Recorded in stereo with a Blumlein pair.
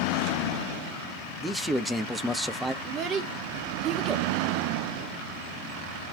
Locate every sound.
1.4 s a man speaking: 5° right, 0.6 m
2.8 s a child speaking: 30° right, 0.9 m